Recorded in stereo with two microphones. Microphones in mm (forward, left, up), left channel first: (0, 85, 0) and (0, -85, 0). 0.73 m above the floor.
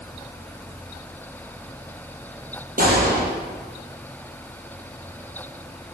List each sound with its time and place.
2.8 s a gunshot: 60° right (ahead or behind), 5.5 m